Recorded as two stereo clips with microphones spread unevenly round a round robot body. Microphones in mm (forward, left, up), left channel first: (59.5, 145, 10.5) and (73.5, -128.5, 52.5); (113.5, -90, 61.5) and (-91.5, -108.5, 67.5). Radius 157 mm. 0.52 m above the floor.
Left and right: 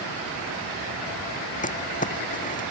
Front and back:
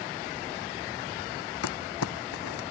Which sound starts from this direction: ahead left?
Crumpling, at 1.6 s.